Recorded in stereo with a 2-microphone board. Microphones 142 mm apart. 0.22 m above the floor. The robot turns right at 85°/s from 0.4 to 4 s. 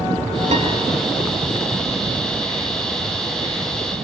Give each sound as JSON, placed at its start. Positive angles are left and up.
{"t": 0.5, "sound": "a piano", "side_deg": -60, "distance_m": 3.5}